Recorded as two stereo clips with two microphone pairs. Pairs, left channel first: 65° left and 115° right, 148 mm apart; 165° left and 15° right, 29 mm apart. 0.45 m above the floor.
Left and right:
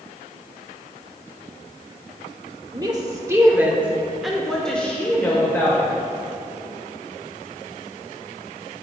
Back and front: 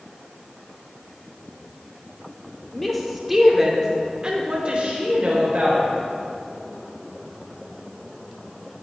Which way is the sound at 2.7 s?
125° right.